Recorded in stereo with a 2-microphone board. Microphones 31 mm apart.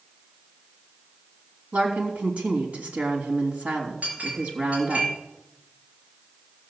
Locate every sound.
1.7 s a woman speaking: 55° right (ahead or behind), 3 m
4.0 s a clink: 45° right (ahead or behind), 4.5 m